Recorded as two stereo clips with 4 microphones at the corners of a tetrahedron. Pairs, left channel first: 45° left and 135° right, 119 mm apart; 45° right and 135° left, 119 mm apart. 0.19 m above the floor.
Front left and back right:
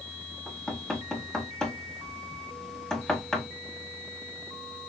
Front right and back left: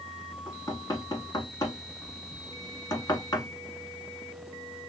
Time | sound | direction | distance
0.5 | knocking | 35° right | 1.1 m